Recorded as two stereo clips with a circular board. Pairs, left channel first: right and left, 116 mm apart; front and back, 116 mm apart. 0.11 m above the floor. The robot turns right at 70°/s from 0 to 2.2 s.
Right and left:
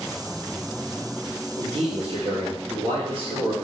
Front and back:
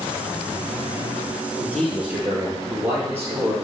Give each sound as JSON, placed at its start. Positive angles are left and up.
{"t": 1.6, "sound": "a man speaking", "azimuth_deg": 65, "distance_m": 2.0}